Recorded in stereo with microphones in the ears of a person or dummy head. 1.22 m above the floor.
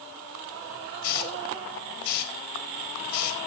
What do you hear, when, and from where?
1.0 s a hiss: 60° left (ahead or behind), 4 m